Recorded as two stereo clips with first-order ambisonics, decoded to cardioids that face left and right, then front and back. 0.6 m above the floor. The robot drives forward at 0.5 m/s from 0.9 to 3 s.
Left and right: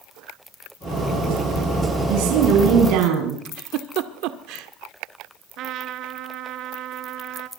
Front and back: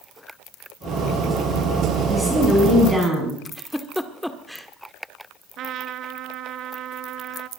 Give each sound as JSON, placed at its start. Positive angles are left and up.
{"t": 2.1, "sound": "a woman speaking", "azimuth_deg": -95, "distance_m": 6.0}
{"t": 3.5, "sound": "a giggle", "azimuth_deg": -90, "distance_m": 1.5}
{"t": 5.6, "sound": "a trumpet", "azimuth_deg": -135, "distance_m": 1.2}